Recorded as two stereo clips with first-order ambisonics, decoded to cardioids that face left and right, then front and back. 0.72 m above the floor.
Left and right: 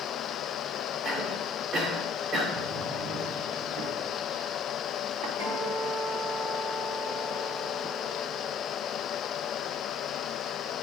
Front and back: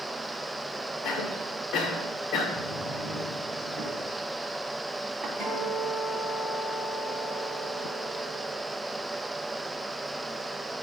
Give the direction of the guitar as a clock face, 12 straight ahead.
3 o'clock.